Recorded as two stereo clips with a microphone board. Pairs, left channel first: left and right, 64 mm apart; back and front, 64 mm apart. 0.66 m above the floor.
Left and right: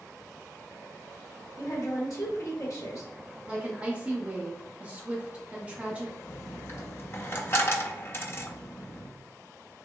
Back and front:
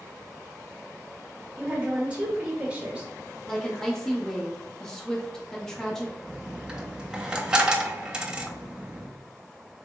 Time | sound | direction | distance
1.6 | a woman speaking | 70° left | 1.1 m
3.5 | a woman speaking | 110° right | 0.6 m
6.3 | a dropped coin | 70° left | 0.5 m